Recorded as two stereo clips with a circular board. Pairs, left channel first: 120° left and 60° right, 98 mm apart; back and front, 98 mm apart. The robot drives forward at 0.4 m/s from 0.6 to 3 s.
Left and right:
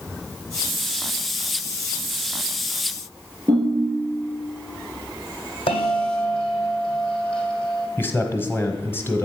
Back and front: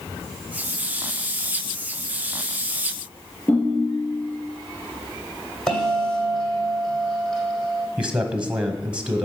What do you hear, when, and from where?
3.5 s a ringtone: 110° right, 3 m
5.7 s a bell: 95° left, 2.0 m
8.0 s a man speaking: 70° left, 1.1 m